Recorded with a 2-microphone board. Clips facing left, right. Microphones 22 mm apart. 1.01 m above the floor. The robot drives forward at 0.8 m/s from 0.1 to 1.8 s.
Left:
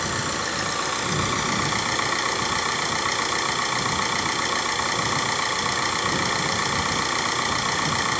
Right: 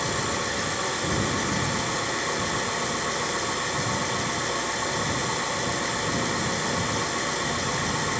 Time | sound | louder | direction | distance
0.0 | an engine running | left 1 dB | 35° left (ahead or behind) | 3 m